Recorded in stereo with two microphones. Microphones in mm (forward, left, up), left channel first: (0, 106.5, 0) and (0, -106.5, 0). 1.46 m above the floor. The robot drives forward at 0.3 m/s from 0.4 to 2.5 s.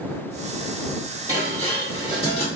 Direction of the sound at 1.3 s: 30° left (ahead or behind).